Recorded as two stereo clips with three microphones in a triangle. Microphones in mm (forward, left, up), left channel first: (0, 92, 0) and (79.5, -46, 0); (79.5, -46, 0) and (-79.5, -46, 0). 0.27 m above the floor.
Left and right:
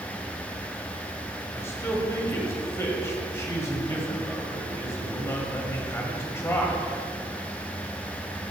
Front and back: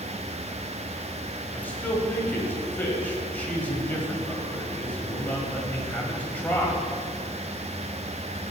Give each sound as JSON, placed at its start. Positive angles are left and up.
{"t": 1.5, "sound": "a man speaking", "azimuth_deg": 65, "distance_m": 1.3}